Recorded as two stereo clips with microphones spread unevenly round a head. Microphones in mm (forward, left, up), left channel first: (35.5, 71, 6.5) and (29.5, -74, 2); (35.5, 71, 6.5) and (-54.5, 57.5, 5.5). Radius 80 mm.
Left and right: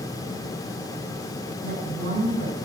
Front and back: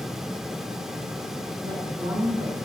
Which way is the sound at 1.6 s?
125° right.